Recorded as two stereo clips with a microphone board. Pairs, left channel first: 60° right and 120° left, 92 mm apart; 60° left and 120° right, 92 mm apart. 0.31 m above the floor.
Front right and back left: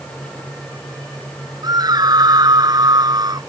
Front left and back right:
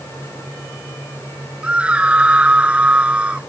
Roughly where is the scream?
Behind.